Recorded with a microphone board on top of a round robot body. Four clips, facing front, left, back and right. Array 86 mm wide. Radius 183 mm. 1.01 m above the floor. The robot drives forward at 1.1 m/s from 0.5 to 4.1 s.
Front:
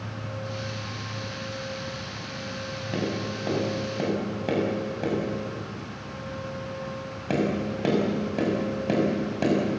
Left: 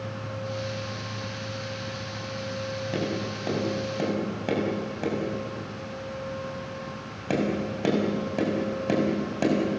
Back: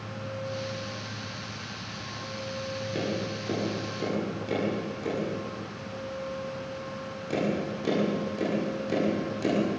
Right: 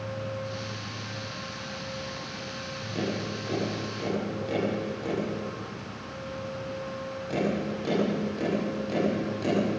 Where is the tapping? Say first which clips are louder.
Right 1 dB, front 3 dB; 45° left, 7.5 m; by 9.6 s 50° left, 6.5 m.